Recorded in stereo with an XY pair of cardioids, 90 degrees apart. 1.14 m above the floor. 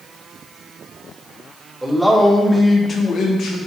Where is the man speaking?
10° right, 1.2 m; by 3.6 s 80° left, 1.1 m.